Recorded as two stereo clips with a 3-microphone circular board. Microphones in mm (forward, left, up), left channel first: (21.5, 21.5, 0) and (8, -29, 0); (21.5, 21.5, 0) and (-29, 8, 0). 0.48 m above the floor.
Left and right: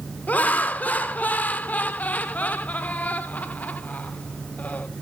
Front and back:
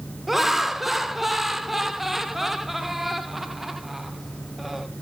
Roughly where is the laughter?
Behind left.